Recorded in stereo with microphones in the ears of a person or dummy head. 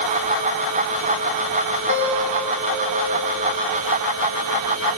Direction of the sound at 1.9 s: 75° right (ahead or behind).